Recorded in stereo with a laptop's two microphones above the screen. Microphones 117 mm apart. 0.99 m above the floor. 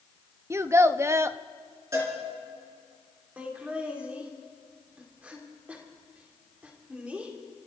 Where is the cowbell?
25° right (ahead or behind), 5 m.